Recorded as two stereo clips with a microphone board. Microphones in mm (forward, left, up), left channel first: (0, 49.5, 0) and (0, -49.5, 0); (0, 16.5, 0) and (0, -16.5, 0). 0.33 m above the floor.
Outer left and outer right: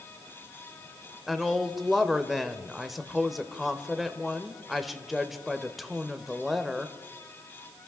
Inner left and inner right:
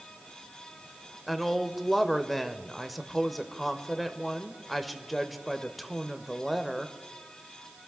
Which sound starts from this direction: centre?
A woman speaking, at 1.3 s.